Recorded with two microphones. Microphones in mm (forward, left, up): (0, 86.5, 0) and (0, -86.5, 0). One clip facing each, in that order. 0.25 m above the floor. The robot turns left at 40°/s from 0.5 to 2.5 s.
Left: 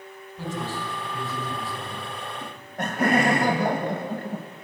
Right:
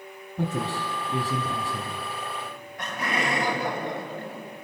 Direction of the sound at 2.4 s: 45° left (ahead or behind).